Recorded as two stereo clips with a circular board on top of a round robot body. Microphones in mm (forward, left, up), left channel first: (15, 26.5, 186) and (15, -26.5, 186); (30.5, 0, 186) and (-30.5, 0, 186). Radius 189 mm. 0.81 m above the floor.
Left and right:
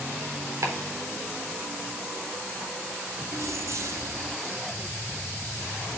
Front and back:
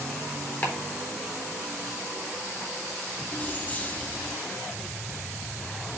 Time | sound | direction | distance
0.6 | chopping | 60° right | 4 m
3.3 | keys jangling | 65° right | 1.4 m